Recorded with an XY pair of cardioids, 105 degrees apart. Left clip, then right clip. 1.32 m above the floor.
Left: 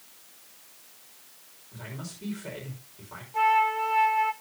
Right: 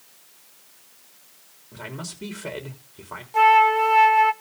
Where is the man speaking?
60° right, 3.5 m.